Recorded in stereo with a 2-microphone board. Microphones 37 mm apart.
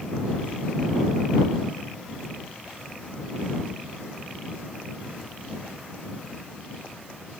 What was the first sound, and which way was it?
Only background noise.